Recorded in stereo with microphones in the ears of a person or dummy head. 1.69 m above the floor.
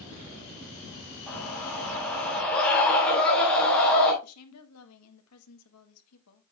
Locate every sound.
1.3 s a scream: 5° left (ahead or behind), 4.5 m
4.2 s a woman speaking: 80° left, 1.7 m